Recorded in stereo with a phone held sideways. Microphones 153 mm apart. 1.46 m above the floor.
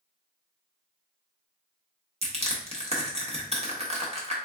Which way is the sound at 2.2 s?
45° right (ahead or behind).